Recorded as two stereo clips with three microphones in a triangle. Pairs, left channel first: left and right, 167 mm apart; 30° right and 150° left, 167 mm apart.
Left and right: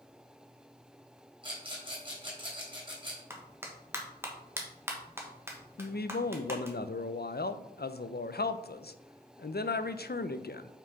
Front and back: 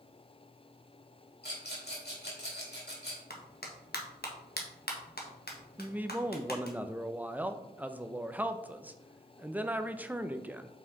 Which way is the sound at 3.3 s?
15° right.